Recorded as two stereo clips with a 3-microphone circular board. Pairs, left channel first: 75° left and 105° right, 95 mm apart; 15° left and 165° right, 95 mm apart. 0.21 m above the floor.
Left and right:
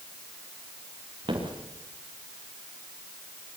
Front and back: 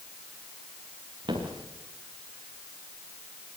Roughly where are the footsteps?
Behind right.